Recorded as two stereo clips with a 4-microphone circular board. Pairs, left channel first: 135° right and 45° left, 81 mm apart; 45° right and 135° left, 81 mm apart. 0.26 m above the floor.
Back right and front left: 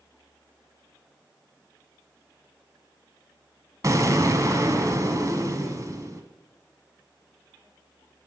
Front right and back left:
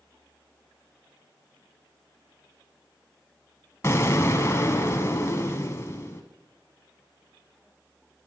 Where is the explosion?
5° left, 1.2 m.